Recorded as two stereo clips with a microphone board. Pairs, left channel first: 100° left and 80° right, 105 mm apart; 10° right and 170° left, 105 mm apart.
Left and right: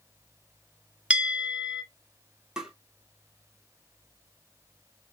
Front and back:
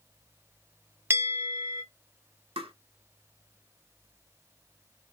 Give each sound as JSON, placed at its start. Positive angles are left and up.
{"t": 1.1, "sound": "a bell", "azimuth_deg": -145, "distance_m": 0.9}
{"t": 2.6, "sound": "tapping", "azimuth_deg": -160, "distance_m": 0.6}